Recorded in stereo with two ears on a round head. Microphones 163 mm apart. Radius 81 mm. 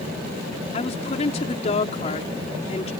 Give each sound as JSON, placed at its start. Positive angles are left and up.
{"t": 0.7, "sound": "a woman speaking", "side_deg": 40}